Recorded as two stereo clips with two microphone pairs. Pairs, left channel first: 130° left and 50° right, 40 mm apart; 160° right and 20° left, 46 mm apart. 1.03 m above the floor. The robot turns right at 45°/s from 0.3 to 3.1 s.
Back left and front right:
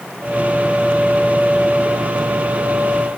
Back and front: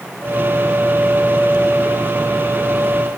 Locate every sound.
Only background noise.